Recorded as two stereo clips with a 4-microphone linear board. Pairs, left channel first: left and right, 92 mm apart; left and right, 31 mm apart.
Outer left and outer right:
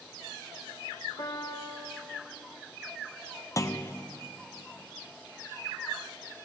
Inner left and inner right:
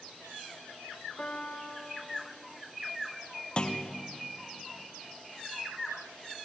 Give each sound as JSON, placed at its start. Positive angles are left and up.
{"t": 1.2, "sound": "a piano", "side_deg": 40, "distance_m": 1.0}
{"t": 3.6, "sound": "a clunk", "side_deg": 35, "distance_m": 0.6}